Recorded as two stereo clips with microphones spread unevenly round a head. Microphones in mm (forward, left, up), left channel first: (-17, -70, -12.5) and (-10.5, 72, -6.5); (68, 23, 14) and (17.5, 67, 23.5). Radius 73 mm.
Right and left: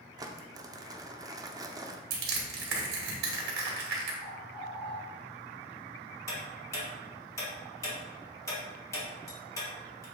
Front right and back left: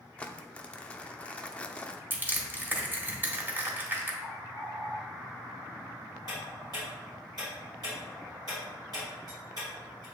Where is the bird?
150° right, 1.3 m.